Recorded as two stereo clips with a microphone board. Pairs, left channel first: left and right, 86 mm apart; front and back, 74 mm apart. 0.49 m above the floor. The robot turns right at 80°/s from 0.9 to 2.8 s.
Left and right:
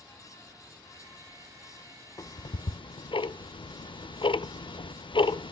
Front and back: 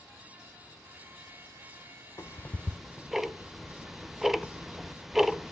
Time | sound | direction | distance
2.2 | ticking | 45° left | 0.5 m